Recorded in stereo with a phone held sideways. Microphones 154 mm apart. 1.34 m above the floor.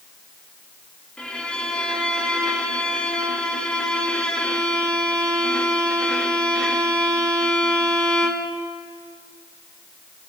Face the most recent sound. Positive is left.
turn(degrees=5)  # may be behind; listen again after turning